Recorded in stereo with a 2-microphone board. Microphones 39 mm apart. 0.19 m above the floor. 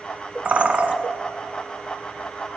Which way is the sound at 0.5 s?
35° right (ahead or behind).